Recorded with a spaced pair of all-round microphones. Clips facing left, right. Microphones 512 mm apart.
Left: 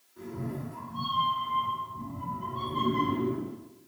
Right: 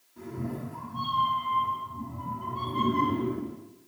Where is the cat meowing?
45° right (ahead or behind), 1.6 m.